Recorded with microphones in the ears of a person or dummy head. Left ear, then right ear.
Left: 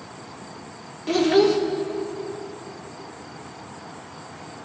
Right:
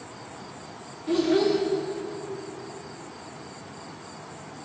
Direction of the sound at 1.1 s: 30° left (ahead or behind).